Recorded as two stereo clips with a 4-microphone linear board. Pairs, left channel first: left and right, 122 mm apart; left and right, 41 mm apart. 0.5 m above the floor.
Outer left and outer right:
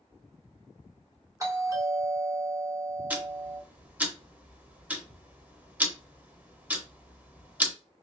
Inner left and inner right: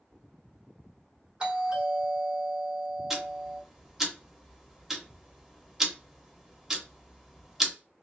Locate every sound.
1.4 s a doorbell: 25° right (ahead or behind), 1.8 m
3.1 s ticking: 10° right (ahead or behind), 0.7 m